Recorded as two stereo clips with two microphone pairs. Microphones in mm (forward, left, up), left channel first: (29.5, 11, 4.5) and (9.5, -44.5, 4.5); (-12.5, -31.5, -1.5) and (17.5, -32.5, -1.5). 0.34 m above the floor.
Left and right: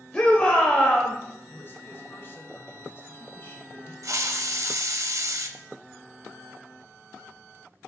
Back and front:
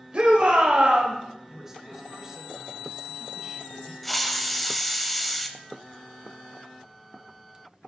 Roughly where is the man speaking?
Ahead left.